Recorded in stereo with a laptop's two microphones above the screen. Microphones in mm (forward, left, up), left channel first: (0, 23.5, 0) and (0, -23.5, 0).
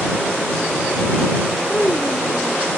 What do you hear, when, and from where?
1.7 s a child speaking: 10° left (ahead or behind)